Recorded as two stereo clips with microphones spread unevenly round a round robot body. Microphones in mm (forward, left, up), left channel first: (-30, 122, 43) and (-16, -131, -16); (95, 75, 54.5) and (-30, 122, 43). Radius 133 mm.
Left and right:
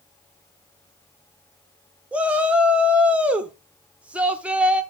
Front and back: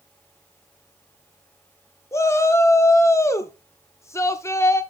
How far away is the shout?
About 0.9 m.